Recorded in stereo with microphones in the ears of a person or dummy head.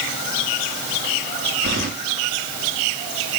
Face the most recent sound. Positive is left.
turn(degrees=-50)  # may be behind; listen again after turning